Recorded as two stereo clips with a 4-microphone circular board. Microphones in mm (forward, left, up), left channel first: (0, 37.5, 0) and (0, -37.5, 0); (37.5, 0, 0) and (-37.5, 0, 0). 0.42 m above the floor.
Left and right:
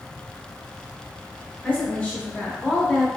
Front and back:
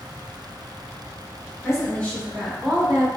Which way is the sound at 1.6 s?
25° left.